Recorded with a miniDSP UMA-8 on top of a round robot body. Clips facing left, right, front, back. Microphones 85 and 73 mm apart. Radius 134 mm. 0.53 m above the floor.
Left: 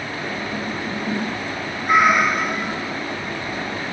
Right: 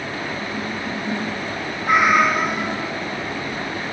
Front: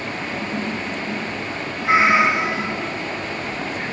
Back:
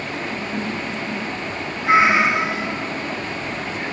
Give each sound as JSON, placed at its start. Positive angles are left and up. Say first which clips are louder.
{"t": 1.8, "sound": "a cat meowing", "louder": "even, even", "azimuth_deg": -85, "distance_m": 2.5}